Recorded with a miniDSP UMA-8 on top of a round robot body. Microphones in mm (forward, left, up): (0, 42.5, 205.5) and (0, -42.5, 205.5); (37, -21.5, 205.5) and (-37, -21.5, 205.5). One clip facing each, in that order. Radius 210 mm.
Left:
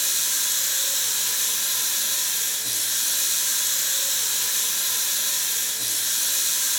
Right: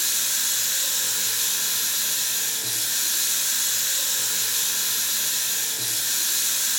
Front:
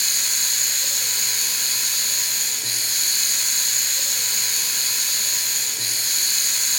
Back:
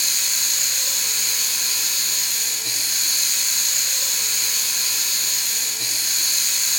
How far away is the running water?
About 8.5 m.